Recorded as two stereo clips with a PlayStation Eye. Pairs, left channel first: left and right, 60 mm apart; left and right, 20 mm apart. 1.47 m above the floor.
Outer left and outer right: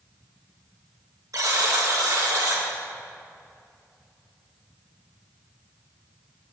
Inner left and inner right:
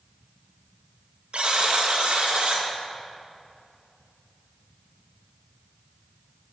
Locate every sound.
1.3 s a buzzer: 70° right (ahead or behind), 1.6 m